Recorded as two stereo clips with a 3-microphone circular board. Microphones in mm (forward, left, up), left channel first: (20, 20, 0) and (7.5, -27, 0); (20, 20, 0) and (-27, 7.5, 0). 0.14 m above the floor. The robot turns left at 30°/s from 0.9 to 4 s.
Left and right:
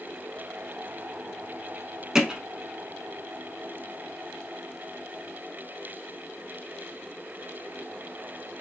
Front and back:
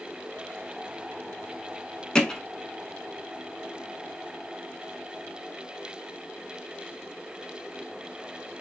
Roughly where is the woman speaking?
No woman speaking in this recording.